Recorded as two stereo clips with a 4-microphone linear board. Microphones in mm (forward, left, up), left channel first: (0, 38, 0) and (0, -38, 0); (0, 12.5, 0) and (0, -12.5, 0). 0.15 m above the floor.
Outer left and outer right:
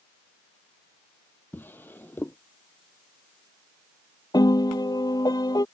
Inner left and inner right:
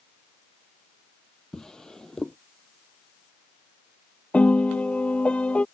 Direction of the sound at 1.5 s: 25° left (ahead or behind).